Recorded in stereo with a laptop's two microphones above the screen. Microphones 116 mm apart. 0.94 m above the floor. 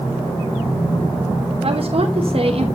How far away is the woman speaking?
About 1.0 m.